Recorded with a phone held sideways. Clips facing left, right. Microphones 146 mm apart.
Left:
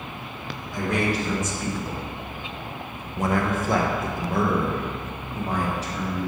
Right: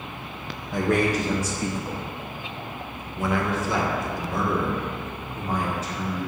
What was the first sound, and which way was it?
A man speaking, 55° right (ahead or behind).